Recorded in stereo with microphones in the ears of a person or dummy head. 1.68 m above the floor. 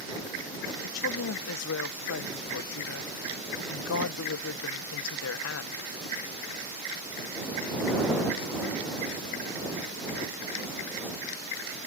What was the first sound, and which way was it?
A woman speaking, 75° left (ahead or behind).